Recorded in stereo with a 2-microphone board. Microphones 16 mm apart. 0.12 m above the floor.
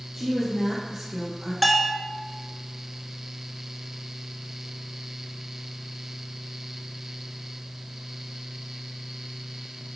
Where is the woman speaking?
10° right (ahead or behind), 2.5 m; by 1.5 s 20° left (ahead or behind), 3.5 m.